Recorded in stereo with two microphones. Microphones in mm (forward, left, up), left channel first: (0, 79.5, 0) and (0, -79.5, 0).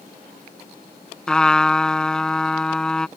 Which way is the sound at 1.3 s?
5° left (ahead or behind).